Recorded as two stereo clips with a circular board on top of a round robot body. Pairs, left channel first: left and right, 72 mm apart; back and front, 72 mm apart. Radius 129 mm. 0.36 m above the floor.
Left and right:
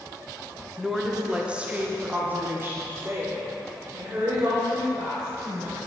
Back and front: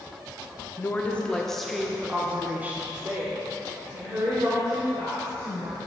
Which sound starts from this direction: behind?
A woman speaking, at 0.8 s.